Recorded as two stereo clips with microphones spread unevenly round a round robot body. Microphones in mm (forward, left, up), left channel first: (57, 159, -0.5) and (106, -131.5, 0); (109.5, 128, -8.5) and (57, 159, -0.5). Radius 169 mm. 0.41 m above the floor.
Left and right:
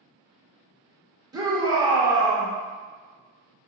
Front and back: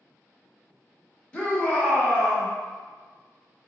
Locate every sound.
1.3 s a shout: 25° right, 0.8 m